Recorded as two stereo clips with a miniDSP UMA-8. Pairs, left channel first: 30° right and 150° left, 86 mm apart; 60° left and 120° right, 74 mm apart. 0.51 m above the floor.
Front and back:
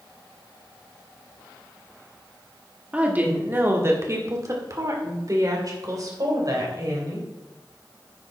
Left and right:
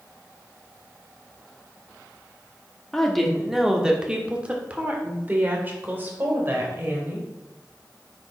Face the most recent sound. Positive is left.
turn(degrees=-175)